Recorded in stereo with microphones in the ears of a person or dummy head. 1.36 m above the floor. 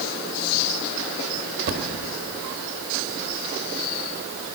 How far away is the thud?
About 1.3 m.